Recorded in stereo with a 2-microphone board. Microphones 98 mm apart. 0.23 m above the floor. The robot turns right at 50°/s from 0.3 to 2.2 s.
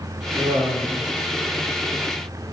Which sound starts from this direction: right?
Laughter, at 0.4 s.